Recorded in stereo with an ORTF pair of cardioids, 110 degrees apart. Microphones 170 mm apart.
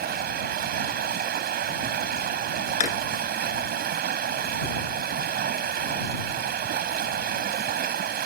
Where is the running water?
70° right.